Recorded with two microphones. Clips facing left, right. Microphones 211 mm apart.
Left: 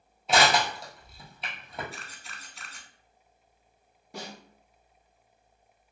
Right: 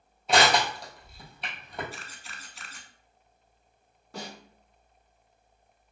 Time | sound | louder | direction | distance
0.3 | crushing | right 1 dB | centre (ahead or behind) | 1.3 m
1.9 | a camera shutter | right 1 dB | centre (ahead or behind) | 0.6 m
4.1 | a snare drum | right 1 dB | 15° left (ahead or behind) | 1.3 m